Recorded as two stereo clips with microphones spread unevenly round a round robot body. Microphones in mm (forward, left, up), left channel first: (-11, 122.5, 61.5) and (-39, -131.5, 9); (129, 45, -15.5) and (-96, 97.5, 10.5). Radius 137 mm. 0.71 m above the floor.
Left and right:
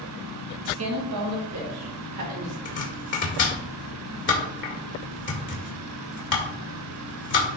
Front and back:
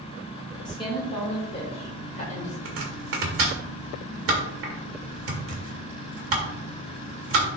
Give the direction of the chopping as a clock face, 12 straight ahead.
7 o'clock.